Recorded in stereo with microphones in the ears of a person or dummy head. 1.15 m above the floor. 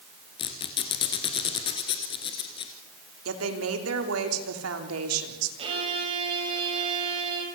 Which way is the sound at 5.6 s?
35° right (ahead or behind).